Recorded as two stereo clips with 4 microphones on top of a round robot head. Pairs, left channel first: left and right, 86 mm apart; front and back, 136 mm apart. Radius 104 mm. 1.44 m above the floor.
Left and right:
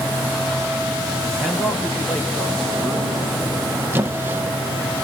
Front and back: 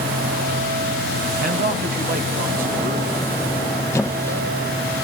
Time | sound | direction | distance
1.4 | a man speaking | straight behind | 2 m
3.9 | a squeak | 65° right | 0.6 m